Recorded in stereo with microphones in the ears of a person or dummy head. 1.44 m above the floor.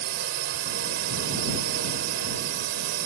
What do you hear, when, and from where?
0.0 s a drone: 70° right (ahead or behind)